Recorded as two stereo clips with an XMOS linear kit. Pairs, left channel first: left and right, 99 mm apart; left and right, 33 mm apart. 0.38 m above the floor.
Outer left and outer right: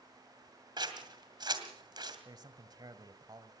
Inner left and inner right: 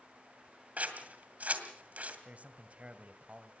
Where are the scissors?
45° right (ahead or behind), 2 m.